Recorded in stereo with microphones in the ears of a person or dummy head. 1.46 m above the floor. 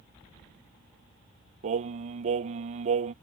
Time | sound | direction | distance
1.6 | singing | 40° right (ahead or behind) | ?